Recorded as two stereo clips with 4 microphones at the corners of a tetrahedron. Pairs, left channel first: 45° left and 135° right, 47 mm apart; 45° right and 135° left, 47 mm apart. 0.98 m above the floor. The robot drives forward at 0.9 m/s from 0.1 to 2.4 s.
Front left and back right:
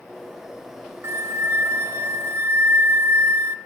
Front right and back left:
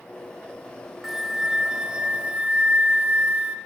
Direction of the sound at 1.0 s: 135° right.